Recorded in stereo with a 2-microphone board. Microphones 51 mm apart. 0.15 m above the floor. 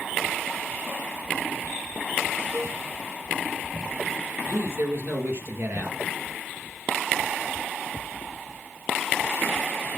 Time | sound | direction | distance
2.5 | a cowbell | 60° right (ahead or behind) | 4.5 m
4.5 | a man speaking | 50° right (ahead or behind) | 3 m